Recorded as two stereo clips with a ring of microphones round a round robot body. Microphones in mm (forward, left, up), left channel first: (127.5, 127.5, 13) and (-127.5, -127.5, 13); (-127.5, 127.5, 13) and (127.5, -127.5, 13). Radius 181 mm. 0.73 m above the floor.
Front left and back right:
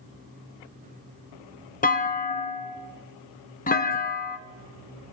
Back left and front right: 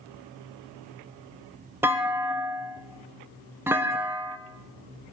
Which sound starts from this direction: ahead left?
A clunk, at 1.8 s.